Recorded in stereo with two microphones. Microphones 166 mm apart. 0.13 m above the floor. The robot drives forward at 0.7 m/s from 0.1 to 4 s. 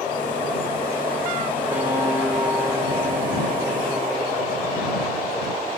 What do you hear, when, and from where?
1.7 s a guitar: 15° right (ahead or behind), 6.5 m